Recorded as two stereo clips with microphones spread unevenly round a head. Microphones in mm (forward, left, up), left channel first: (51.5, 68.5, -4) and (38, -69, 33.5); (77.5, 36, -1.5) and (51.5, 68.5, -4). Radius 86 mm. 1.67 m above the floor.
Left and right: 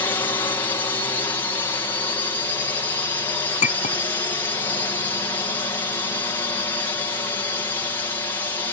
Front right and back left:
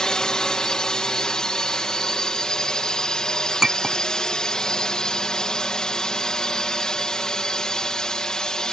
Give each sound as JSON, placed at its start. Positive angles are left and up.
{"t": 0.0, "sound": "a drone", "azimuth_deg": 20}
{"t": 3.6, "sound": "a clink", "azimuth_deg": 50}